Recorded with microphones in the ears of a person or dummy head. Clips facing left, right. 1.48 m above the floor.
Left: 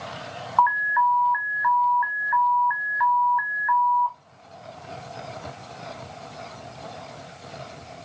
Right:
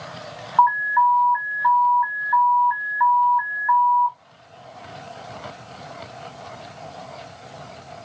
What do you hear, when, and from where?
0.6 s an alarm: 15° left (ahead or behind), 0.5 m